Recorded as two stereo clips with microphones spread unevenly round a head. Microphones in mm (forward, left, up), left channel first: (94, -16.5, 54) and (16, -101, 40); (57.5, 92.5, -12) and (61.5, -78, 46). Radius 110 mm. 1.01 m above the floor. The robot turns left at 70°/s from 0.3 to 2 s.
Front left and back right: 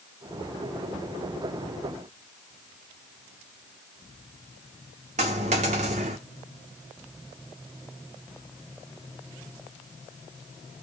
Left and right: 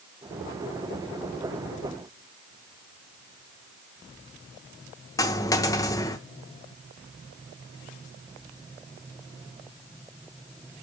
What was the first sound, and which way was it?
A dropped coin, straight behind.